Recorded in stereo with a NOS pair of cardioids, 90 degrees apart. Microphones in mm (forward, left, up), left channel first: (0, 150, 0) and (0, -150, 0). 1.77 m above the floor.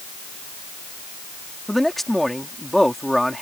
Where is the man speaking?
Straight ahead.